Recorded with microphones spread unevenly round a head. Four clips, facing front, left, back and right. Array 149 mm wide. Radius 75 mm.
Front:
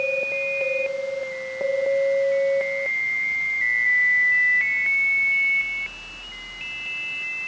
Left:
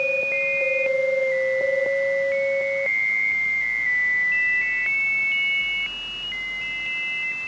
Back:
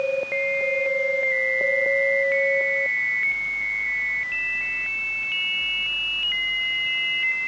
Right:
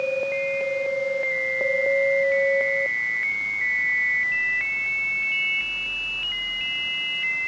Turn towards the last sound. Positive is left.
No sound to turn to.